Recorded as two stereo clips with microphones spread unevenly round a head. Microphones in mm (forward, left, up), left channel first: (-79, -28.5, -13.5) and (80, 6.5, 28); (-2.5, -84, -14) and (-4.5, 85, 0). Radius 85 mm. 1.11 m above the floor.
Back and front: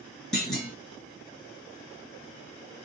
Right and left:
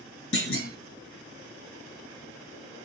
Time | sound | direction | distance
0.3 | a clunk | 75° right | 2 m